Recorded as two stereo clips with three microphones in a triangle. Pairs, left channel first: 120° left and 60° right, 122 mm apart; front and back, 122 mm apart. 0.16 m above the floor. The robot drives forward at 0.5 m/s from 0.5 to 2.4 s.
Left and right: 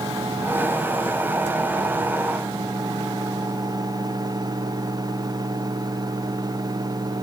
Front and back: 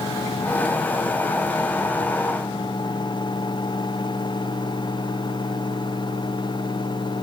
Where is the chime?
I don't hear a chime.